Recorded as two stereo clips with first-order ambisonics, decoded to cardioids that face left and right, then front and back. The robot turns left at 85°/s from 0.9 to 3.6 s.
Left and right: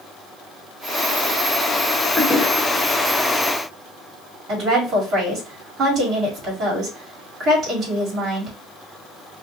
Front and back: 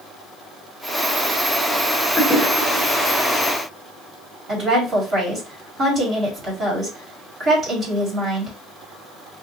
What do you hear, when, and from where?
2.2 s a toilet flushing: 60° left, 0.9 m; by 3.4 s 45° right, 0.9 m
4.5 s a woman speaking: 130° right, 1.6 m